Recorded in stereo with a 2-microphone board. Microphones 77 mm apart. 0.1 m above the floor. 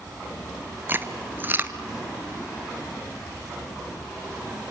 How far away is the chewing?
About 1.2 m.